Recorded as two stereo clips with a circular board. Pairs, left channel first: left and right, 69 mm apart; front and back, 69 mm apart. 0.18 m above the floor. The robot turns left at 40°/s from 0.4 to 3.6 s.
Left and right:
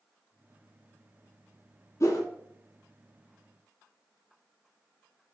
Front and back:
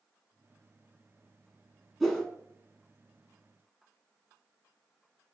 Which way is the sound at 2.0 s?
90° left.